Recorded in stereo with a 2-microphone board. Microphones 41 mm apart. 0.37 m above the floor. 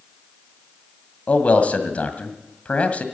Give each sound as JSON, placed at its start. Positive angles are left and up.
{"t": 1.3, "sound": "a man speaking", "side_deg": 40, "distance_m": 1.9}